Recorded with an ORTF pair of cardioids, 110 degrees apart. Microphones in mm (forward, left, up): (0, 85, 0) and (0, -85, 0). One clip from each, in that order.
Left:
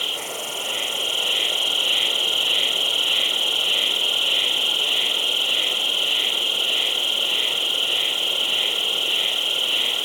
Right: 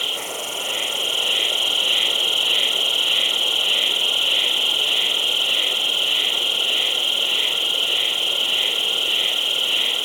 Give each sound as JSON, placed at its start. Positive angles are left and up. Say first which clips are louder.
{"t": 0.0, "sound": "an insect", "louder": "right 1 dB", "azimuth_deg": -5}